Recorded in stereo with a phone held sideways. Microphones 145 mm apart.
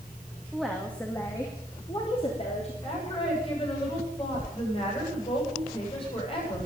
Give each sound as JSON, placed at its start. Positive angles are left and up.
{"t": 0.5, "sound": "a woman speaking", "side_deg": -5, "distance_m": 2.0}
{"t": 2.8, "sound": "a woman speaking", "side_deg": 35, "distance_m": 8.5}